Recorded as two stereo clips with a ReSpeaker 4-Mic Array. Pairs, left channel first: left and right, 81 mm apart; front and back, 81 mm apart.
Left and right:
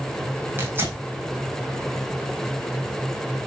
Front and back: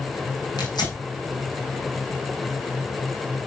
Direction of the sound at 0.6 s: 30° right.